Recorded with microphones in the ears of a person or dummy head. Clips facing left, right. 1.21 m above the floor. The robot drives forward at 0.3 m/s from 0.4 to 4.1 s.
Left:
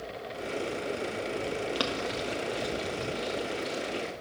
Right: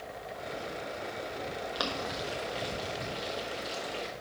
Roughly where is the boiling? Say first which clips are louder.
Left 4 dB; left.